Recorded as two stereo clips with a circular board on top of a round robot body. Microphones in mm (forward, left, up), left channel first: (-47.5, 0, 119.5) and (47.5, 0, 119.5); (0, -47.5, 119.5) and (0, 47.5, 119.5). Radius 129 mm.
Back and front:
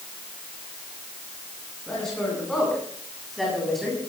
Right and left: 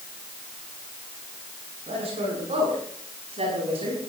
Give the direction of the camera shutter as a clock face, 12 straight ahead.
I don't hear a camera shutter.